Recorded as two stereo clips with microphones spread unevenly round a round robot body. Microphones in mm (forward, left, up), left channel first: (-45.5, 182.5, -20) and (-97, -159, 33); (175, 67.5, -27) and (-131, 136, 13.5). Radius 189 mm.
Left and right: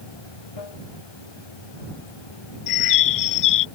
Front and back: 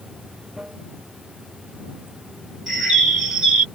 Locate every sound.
0.0 s running water: 80° left
2.7 s a bird: 75° left